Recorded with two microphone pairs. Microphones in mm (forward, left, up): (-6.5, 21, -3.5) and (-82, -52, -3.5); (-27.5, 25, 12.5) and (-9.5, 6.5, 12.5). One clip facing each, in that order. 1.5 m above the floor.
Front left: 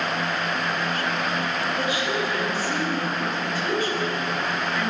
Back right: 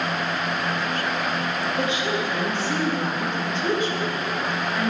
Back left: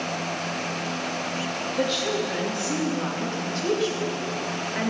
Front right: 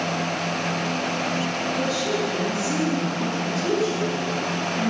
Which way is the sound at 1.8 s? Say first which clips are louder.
Back right 1 dB, back left 1 dB; 160° left.